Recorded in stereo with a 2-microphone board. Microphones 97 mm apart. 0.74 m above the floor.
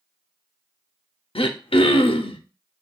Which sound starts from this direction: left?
Throat clearing, at 1.4 s.